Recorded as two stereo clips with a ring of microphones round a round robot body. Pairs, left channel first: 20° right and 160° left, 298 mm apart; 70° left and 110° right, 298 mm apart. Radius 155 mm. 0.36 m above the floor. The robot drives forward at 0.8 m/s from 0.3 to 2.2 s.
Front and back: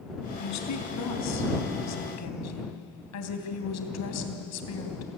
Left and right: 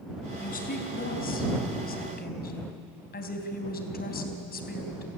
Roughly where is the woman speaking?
Ahead.